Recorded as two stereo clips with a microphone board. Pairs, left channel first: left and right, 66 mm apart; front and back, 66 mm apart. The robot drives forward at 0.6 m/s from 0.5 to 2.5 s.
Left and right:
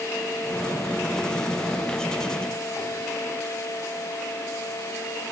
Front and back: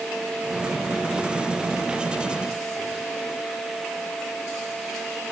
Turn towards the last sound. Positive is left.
No sound to turn to.